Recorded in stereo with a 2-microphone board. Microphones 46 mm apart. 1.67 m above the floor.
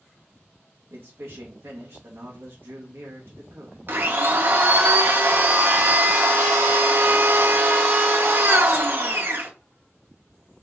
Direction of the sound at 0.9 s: 60° right (ahead or behind).